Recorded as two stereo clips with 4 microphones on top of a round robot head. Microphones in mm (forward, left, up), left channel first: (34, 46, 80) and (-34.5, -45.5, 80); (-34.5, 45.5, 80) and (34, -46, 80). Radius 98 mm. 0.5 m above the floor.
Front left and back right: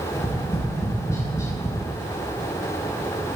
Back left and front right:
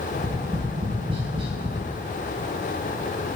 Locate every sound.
0.1 s tapping: 10° right, 4 m